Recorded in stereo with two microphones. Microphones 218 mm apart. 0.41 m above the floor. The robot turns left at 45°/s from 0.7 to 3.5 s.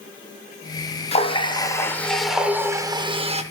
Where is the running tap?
50° left, 0.5 m; by 3.4 s 55° right, 0.5 m.